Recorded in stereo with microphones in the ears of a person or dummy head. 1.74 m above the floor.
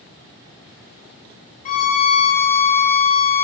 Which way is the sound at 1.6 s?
40° left (ahead or behind).